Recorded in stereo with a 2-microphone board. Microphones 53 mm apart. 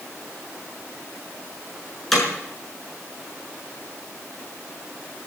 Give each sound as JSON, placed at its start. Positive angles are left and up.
{"t": 2.1, "sound": "hammering", "side_deg": 5, "distance_m": 6.0}